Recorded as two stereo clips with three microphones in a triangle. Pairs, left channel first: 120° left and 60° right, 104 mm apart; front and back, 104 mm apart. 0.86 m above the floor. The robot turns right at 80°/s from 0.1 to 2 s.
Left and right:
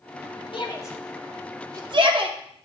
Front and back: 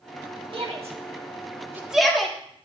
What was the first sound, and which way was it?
A shout, 155° left.